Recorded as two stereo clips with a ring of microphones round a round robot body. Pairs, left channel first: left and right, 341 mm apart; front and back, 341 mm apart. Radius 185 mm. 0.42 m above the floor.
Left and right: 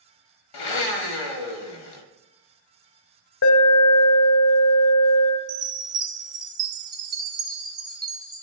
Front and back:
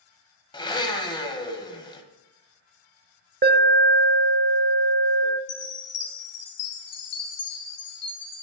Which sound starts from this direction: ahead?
A chime, at 5.5 s.